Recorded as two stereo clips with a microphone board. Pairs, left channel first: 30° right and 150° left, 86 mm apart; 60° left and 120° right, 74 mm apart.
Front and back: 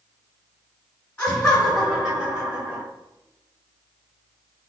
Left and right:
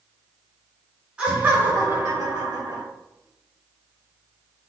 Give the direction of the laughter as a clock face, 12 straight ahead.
3 o'clock.